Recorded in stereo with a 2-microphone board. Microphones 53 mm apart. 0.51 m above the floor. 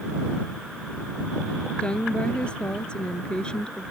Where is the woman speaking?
20° left (ahead or behind).